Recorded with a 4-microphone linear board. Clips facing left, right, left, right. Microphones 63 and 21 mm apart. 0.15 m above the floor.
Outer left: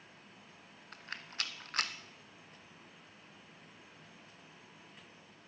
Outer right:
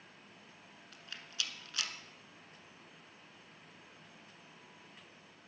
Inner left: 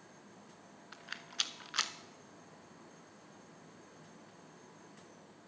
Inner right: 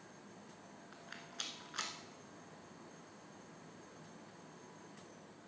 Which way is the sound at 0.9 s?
45° left (ahead or behind).